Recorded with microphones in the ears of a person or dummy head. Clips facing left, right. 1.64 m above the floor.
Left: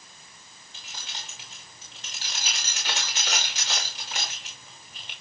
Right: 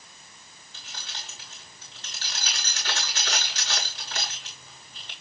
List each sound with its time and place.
0.7 s keys jangling: 20° left (ahead or behind), 5 m